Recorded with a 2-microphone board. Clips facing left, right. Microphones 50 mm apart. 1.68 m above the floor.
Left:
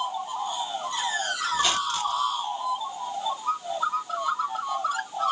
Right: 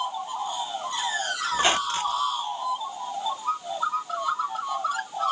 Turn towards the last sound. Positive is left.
turn(degrees=-35)  # may be behind; listen again after turning